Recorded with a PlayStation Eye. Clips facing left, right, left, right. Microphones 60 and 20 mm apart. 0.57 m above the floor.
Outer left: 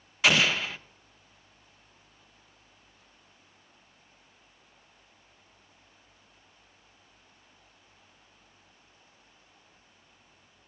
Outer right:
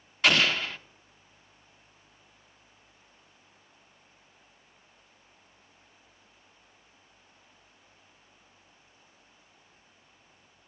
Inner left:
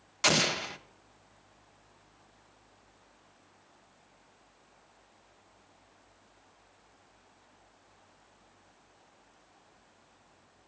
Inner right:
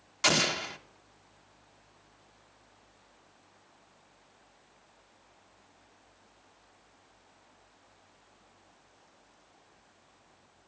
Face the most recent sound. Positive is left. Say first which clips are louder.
# even, even
turn(degrees=5)  # may be behind; listen again after turning